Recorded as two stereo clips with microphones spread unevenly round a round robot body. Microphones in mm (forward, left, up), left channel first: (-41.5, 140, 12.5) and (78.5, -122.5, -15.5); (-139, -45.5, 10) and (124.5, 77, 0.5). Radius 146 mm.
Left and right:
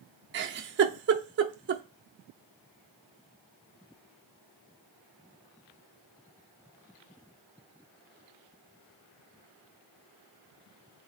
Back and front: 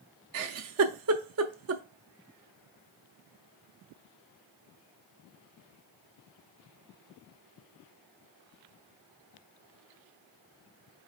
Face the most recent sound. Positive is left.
turn(degrees=-15)